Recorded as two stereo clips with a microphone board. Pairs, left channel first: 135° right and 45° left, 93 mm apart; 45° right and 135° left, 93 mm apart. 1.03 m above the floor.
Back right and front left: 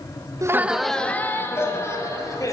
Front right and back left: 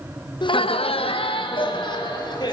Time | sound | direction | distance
0.4 | laughter | 10° right | 0.6 m